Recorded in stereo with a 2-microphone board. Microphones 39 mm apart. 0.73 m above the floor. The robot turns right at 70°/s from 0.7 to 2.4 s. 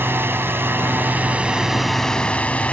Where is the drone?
80° right; by 2.7 s 35° left.